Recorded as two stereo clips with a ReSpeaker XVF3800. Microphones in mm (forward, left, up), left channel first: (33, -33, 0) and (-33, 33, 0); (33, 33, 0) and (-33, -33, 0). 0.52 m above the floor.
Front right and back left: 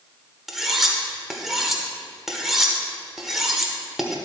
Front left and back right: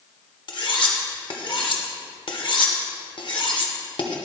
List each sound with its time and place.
0.5 s cutlery clinking: 50° left, 0.9 m